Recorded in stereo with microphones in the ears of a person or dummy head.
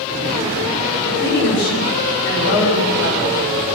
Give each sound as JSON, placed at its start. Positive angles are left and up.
{"t": 1.0, "sound": "a woman speaking", "side_deg": 65, "distance_m": 6.5}